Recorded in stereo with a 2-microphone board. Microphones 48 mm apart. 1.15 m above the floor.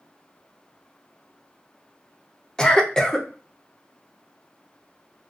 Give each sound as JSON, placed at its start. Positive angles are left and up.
{"t": 2.6, "sound": "a cough", "side_deg": 15, "distance_m": 0.6}